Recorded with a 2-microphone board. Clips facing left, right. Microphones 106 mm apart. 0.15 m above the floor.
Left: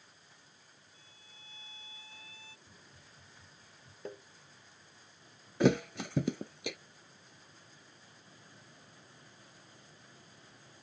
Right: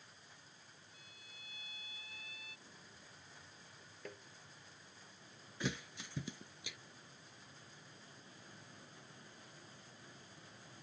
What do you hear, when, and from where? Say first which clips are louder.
0.9 s a violin: even; 30° left (ahead or behind)
2.7 s a hiss: even; 85° left
4.0 s tapping: left 7 dB; 25° left (ahead or behind)
5.6 s a thud: left 16 dB; 60° left (ahead or behind)